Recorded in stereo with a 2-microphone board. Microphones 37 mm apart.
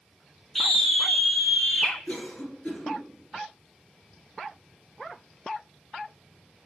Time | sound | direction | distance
0.6 | a scream | 15° left (ahead or behind) | 1.9 m
2.1 | a cough | 45° left (ahead or behind) | 4 m